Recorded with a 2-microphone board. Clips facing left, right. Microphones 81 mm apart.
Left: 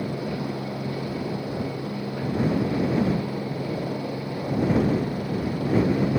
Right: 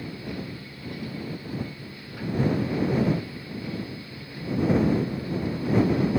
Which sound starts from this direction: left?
A helicopter, at 0.0 s.